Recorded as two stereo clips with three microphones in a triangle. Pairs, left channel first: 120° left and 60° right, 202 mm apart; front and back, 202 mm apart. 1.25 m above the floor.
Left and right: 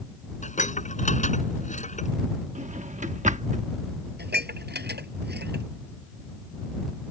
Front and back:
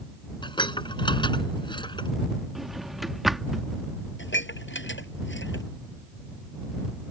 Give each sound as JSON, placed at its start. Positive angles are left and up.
{"t": 0.4, "sound": "dishes clattering", "azimuth_deg": 65}
{"t": 2.5, "sound": "a drawer", "azimuth_deg": -90}
{"t": 4.2, "sound": "dishes clattering", "azimuth_deg": -25}